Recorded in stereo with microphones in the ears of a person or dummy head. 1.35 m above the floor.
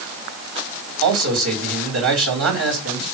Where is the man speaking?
75° right (ahead or behind), 4 m.